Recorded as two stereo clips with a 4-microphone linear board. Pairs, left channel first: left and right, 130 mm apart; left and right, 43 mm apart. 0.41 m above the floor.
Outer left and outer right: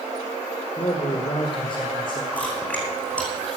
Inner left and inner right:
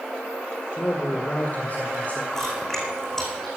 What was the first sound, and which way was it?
A man speaking, 40° left (ahead or behind).